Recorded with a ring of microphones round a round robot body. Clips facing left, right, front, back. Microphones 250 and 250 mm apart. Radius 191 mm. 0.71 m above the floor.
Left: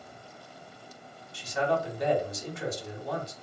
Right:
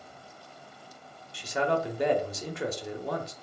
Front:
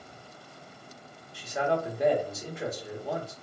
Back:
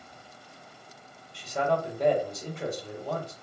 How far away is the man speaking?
About 0.7 m.